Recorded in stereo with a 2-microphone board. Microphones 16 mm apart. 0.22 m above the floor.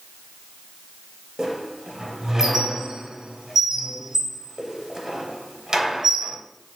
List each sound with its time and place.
1.4 s a squeak: 25° right (ahead or behind), 0.8 m